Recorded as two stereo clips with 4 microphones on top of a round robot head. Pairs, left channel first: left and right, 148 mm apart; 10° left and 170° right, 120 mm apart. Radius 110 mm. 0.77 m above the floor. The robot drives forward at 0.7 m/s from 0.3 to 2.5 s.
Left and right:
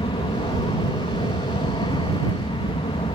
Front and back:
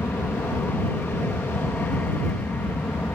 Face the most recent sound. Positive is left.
turn(degrees=75)